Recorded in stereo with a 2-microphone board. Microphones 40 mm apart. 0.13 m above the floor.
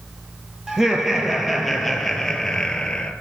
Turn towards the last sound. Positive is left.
turn(degrees=20)  # may be behind; listen again after turning